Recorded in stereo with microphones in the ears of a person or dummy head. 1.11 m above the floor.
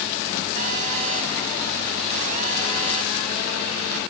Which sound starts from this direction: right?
A phone buzzing, at 0.6 s.